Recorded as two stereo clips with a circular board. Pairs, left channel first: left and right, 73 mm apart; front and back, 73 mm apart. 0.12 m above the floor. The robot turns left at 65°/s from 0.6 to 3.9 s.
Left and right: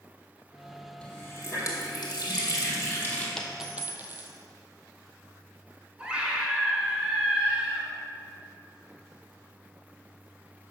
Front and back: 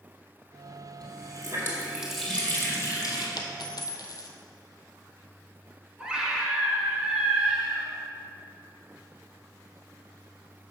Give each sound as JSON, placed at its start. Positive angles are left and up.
{"t": 1.0, "sound": "a running tap", "azimuth_deg": 165, "distance_m": 2.5}
{"t": 3.4, "sound": "a dropped coin", "azimuth_deg": 10, "distance_m": 1.0}
{"t": 6.0, "sound": "a scream", "azimuth_deg": -130, "distance_m": 1.5}